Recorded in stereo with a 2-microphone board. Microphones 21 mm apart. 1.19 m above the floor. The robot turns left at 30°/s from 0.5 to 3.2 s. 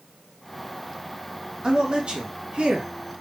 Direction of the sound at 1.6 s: 60° right.